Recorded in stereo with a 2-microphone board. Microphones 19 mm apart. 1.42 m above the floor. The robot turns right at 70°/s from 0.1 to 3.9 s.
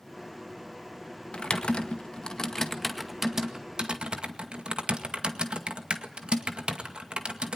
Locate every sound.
1.3 s typing on a keyboard: 65° left (ahead or behind), 2.0 m; by 7.6 s 65° right (ahead or behind), 2.0 m